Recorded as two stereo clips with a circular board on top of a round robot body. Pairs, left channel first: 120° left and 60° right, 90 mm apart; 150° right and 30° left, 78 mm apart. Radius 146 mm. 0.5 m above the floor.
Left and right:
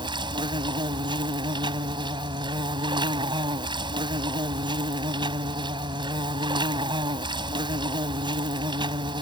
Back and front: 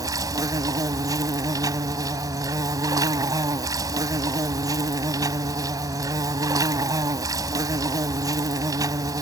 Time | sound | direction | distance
0.0 | an insect | 15° right | ?